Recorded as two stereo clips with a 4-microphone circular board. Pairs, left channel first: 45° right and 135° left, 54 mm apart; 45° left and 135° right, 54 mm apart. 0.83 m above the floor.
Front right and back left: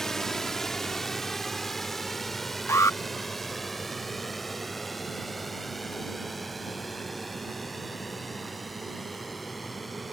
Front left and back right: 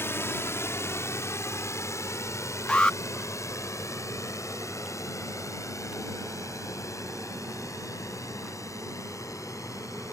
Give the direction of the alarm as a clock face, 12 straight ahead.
1 o'clock.